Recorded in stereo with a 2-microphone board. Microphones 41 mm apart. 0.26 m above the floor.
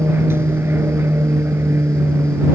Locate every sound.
0.0 s an aircraft: 70° right (ahead or behind)